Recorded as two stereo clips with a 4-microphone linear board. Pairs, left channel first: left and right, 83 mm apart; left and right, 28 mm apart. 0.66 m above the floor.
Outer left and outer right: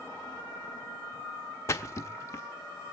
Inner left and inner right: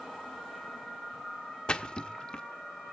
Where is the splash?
35° left (ahead or behind), 0.8 m.